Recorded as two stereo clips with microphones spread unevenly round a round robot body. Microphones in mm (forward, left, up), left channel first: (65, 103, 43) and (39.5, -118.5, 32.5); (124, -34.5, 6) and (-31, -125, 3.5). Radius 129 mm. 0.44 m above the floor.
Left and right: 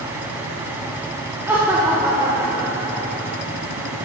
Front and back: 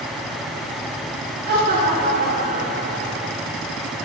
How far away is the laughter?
About 1.3 m.